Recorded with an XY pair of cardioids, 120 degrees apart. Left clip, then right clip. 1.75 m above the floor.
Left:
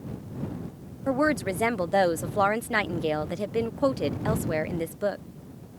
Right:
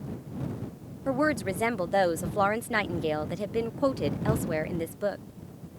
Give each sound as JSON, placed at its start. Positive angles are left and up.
{"t": 1.1, "sound": "a woman speaking", "azimuth_deg": 10}